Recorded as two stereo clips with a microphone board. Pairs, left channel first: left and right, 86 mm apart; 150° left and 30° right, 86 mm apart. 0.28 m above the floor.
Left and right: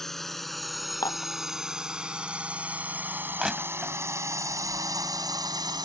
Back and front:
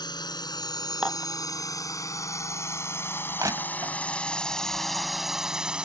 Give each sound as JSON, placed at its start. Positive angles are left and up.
{"t": 0.0, "sound": "a drone", "azimuth_deg": 175}
{"t": 1.0, "sound": "dishes clattering", "azimuth_deg": 50}
{"t": 3.4, "sound": "crushing", "azimuth_deg": -10}